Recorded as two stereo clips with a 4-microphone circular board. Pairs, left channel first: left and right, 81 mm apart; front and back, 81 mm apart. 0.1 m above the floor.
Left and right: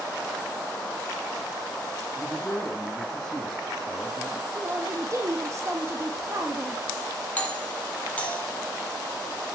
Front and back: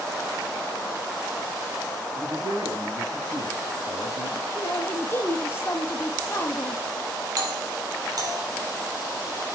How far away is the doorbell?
About 4.5 m.